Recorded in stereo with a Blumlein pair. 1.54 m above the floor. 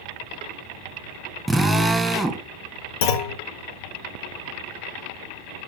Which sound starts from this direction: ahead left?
A clunk, at 3.0 s.